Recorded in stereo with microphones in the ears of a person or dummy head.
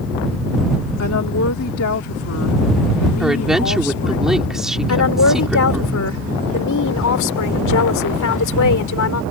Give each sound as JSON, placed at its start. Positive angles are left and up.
{"t": 1.0, "sound": "a woman speaking", "side_deg": 80}
{"t": 3.2, "sound": "a woman speaking", "side_deg": -5}
{"t": 4.9, "sound": "a woman speaking", "side_deg": 85}